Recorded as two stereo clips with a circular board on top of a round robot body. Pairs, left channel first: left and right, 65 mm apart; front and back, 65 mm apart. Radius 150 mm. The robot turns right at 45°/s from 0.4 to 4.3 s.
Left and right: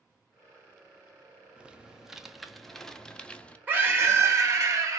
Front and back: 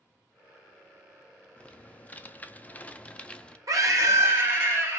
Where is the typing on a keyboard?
40° right, 0.7 m; by 3.6 s 50° left, 0.7 m.